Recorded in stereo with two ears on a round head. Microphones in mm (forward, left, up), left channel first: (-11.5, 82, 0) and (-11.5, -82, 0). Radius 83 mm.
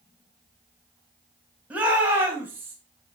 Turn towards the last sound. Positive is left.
turn(degrees=-10)  # may be behind; listen again after turning